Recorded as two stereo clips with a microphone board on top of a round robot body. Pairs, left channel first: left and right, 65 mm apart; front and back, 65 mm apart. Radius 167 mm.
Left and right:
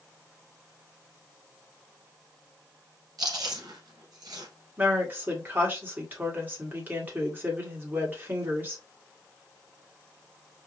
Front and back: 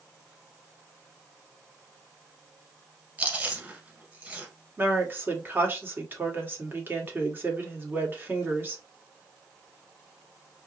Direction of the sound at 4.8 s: 140° right.